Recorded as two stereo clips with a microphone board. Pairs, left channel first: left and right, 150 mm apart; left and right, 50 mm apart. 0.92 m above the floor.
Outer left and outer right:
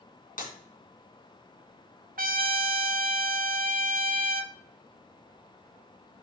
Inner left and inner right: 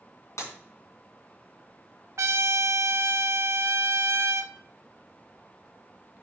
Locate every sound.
0.4 s breaking glass: 80° left, 3 m
2.2 s a trumpet: 80° right, 0.6 m